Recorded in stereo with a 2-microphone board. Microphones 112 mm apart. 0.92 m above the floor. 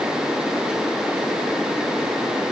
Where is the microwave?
No microwave in this recording.